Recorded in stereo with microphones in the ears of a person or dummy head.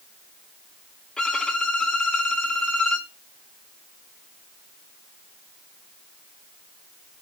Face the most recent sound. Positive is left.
turn(degrees=10)  # may be behind; listen again after turning